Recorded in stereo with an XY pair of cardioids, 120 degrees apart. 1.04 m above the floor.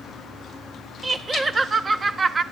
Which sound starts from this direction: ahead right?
Laughter, at 1.0 s.